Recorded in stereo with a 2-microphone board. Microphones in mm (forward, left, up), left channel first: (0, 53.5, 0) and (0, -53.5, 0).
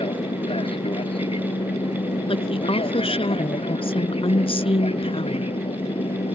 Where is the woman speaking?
60° left (ahead or behind).